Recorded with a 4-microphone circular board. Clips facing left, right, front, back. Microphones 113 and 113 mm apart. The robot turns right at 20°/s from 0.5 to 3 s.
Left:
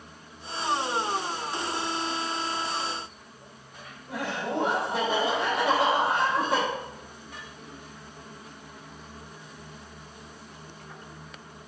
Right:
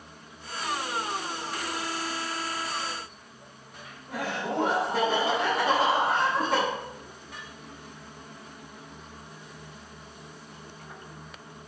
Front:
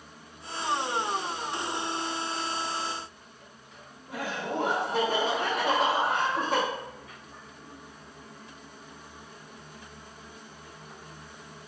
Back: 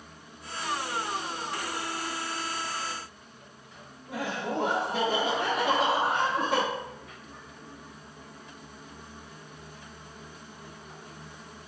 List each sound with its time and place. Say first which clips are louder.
4.1 s laughter: even, back 1 dB; 5° left, 1.2 m